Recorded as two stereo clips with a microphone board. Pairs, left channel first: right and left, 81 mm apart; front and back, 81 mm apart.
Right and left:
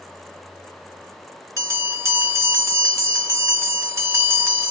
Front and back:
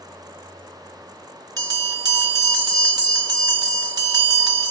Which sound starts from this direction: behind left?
A bell, at 1.6 s.